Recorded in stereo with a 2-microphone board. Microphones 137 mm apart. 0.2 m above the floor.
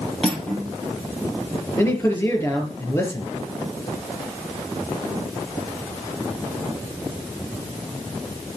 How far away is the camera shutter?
No camera shutter in this recording.